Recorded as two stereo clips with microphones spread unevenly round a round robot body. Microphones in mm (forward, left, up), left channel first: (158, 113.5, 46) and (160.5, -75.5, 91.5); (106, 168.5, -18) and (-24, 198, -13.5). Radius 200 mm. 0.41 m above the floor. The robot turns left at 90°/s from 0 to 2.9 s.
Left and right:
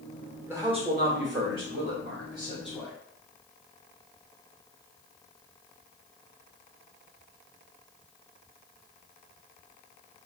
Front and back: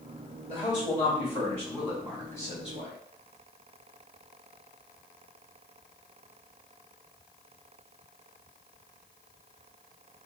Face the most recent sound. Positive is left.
turn(degrees=145)